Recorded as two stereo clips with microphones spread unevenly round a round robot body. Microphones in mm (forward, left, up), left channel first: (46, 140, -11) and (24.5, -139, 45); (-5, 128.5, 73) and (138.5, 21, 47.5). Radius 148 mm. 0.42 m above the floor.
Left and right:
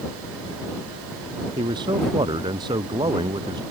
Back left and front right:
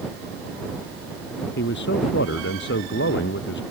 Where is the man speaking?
170° right.